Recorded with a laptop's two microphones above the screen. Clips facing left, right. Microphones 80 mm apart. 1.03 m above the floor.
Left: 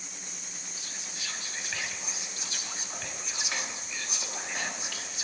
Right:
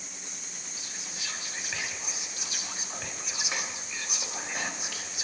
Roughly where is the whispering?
Centre.